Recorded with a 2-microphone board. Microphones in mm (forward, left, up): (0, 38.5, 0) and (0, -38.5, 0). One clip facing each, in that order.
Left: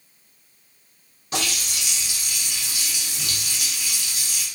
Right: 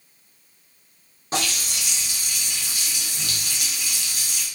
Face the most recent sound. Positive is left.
turn(degrees=-35)  # may be behind; listen again after turning